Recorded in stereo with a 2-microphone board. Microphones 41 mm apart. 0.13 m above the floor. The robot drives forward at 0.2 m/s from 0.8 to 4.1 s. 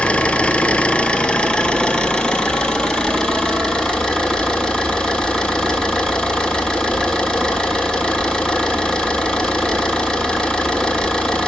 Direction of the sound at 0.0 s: 30° left (ahead or behind).